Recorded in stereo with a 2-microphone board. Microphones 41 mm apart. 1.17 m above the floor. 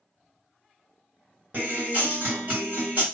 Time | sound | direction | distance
1.5 | a guitar | 45° right (ahead or behind) | 1.5 m